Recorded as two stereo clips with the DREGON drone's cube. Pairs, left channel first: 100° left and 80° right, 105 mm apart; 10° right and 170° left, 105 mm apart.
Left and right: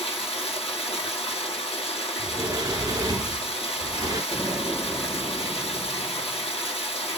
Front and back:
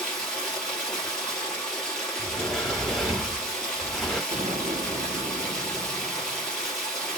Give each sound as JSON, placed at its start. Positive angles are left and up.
{"t": 0.0, "sound": "running water", "azimuth_deg": 75, "distance_m": 2.5}
{"t": 2.2, "sound": "a sliding door", "azimuth_deg": -95, "distance_m": 1.1}
{"t": 4.3, "sound": "an explosion", "azimuth_deg": 155, "distance_m": 1.1}